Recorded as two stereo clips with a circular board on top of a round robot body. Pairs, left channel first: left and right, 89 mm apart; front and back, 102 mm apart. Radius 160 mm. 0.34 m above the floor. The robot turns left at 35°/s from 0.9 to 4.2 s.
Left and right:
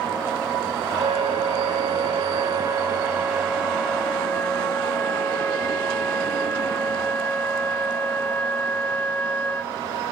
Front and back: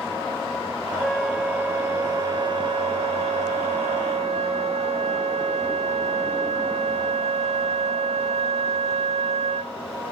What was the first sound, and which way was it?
A flute, 85° right.